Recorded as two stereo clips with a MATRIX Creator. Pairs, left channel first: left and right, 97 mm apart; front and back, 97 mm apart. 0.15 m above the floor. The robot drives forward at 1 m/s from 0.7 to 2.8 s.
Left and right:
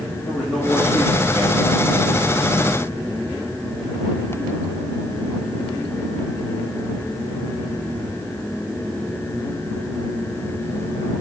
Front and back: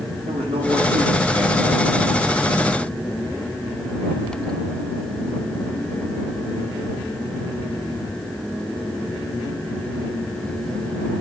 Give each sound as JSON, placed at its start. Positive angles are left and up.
{"t": 0.2, "sound": "a man speaking", "azimuth_deg": 175, "distance_m": 5.5}